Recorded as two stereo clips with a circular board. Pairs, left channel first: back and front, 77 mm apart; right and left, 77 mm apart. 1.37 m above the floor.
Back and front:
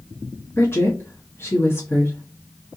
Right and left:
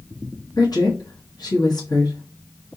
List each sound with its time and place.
0.6 s a woman speaking: 120° right, 1.3 m